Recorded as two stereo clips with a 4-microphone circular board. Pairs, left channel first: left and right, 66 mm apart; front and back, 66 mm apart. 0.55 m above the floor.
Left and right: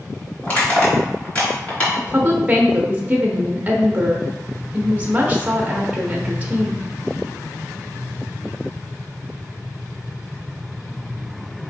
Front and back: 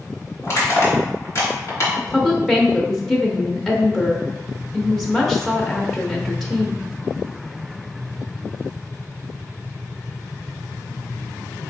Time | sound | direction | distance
0.4 | crushing | 35° left | 2 m
2.0 | a woman speaking | 80° right | 0.7 m